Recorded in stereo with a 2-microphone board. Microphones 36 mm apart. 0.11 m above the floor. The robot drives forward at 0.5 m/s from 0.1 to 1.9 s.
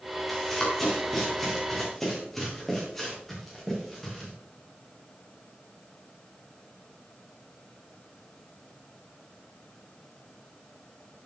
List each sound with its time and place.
0.3 s running footsteps: 10° left (ahead or behind), 6 m